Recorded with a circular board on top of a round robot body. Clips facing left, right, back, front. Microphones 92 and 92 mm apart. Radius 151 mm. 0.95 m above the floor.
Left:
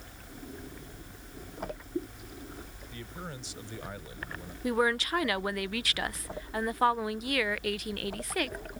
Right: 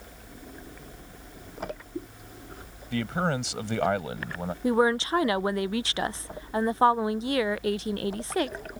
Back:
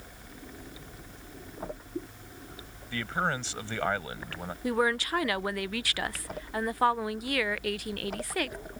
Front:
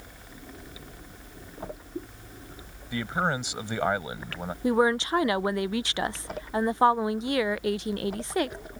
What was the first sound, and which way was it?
A man speaking, 75° right.